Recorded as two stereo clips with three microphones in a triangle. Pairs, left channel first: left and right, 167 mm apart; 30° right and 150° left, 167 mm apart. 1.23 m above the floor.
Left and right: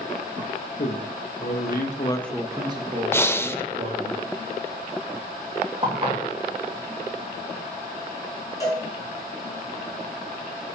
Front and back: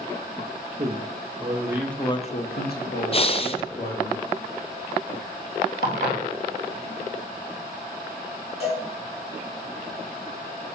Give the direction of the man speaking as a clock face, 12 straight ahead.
9 o'clock.